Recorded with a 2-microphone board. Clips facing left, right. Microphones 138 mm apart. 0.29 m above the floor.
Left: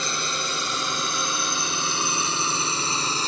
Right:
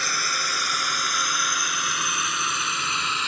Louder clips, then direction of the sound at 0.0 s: Left 1 dB; 25° left (ahead or behind).